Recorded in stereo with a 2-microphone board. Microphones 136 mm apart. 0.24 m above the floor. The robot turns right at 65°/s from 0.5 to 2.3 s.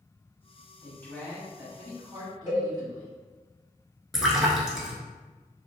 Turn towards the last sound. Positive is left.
turn(degrees=0)  # may be behind; listen again after turning